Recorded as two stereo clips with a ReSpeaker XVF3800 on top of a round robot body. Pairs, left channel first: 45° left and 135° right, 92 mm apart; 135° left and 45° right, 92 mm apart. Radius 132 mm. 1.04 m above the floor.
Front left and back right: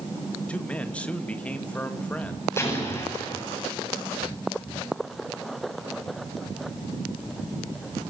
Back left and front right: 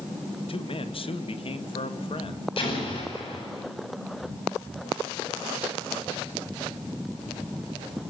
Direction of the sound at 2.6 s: 110° left.